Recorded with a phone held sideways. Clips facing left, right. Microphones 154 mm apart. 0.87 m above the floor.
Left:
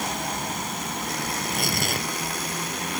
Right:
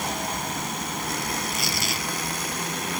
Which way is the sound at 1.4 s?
55° left (ahead or behind).